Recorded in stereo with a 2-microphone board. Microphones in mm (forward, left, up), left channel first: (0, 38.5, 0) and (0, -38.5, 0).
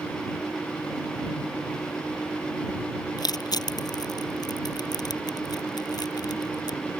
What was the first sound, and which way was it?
Crushing, 60° left (ahead or behind).